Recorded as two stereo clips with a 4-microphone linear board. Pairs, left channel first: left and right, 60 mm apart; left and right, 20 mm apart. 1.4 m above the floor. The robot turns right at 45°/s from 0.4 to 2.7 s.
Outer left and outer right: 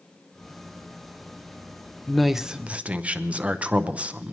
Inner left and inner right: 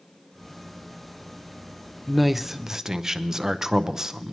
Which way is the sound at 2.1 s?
5° left (ahead or behind).